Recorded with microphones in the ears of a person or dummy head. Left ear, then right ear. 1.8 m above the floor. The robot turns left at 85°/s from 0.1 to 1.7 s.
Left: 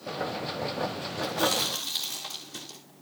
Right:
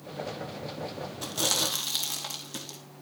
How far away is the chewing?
About 3 m.